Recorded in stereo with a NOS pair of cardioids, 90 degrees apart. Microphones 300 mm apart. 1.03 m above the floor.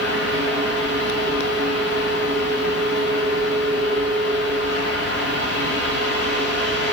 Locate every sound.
0.0 s a fan: 70° left, 9.5 m